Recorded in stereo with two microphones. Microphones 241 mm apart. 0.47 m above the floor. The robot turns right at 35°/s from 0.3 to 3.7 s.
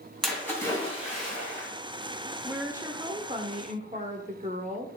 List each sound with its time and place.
0.2 s a splash: straight ahead, 3.5 m; by 1.7 s 50° left, 3.5 m
2.4 s a woman speaking: 170° right, 1.4 m; by 4.9 s 125° right, 1.4 m